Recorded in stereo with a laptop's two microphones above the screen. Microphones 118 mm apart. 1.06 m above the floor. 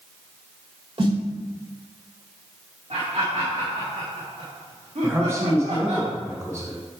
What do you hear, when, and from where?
1.0 s a snare drum: 50° right (ahead or behind), 1.9 m
2.9 s laughter: 70° right (ahead or behind), 1.8 m
5.0 s a man speaking: 25° right (ahead or behind), 1.2 m